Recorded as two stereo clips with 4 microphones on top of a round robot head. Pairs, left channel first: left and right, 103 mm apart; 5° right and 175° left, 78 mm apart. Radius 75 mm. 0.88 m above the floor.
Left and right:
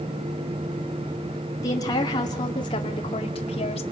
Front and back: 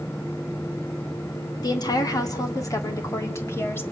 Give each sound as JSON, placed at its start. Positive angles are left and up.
{"t": 1.6, "sound": "a woman speaking", "azimuth_deg": 30, "distance_m": 2.5}